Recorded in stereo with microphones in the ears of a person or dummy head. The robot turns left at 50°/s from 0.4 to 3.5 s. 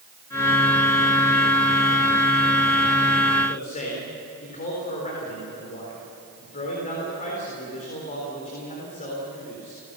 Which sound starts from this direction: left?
A man speaking, at 3.5 s.